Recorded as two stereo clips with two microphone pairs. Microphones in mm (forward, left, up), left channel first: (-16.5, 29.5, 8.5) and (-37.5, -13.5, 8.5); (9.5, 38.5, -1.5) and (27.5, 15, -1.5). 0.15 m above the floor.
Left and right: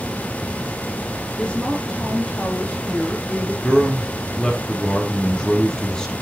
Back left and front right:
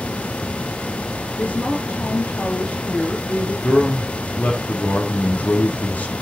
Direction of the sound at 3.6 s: 140° left.